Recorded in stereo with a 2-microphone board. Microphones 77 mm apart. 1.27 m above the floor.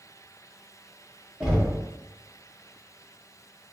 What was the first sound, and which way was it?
Knocking, 15° right (ahead or behind).